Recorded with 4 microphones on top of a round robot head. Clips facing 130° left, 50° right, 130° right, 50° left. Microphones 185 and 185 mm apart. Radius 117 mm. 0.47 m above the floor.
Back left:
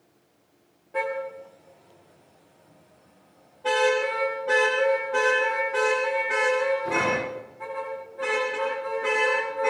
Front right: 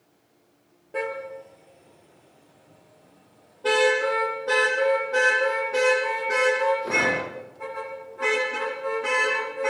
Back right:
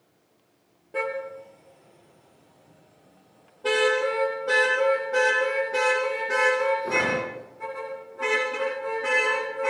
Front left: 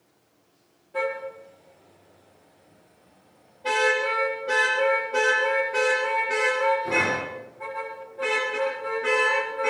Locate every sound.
0.9 s a car horn: 100° right, 6 m; by 9.7 s 90° right, 18.5 m